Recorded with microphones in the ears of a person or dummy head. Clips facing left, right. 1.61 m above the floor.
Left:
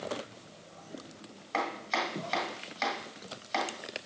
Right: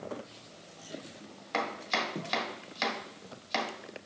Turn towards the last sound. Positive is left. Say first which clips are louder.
# even
turn(degrees=-25)  # may be behind; listen again after turning